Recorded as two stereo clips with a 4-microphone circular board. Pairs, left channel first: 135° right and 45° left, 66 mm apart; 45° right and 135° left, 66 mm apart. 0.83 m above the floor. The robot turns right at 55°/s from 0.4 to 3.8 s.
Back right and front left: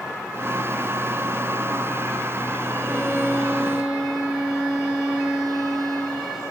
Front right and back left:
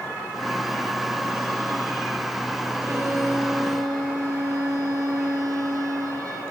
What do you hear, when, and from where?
2.8 s a violin: 75° left, 4.5 m; by 6.4 s 130° left, 4.5 m